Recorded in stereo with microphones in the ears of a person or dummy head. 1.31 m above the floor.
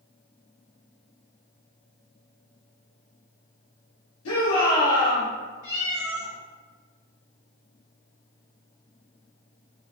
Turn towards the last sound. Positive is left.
turn(degrees=-15)  # may be behind; listen again after turning